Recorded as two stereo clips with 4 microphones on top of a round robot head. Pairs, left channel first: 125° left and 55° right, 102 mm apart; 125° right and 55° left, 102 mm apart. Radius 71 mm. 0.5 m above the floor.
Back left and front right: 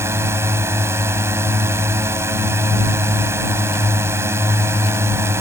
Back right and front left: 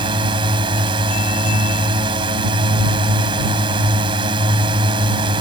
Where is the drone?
10° left.